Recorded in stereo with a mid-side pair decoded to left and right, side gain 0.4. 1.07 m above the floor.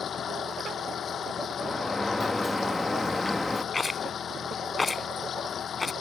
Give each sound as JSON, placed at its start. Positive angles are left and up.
{"t": 0.0, "sound": "a machine running", "azimuth_deg": 55}
{"t": 1.6, "sound": "a sliding door", "azimuth_deg": 10}
{"t": 3.7, "sound": "a rattle", "azimuth_deg": 20}